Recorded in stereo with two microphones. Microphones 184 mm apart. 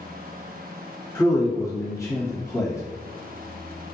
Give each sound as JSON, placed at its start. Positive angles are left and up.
{"t": 1.1, "sound": "a man speaking", "side_deg": 20, "distance_m": 1.3}